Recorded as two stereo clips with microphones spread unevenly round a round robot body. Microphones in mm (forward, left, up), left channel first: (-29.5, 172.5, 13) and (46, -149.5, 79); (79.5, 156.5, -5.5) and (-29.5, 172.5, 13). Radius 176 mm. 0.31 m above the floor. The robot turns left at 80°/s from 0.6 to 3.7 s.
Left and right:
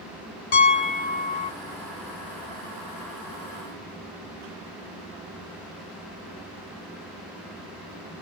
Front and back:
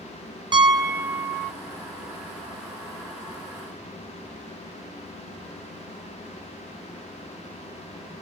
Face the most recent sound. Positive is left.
turn(degrees=-120)